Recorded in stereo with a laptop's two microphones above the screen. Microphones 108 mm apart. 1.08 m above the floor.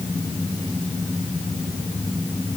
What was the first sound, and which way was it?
Only background noise.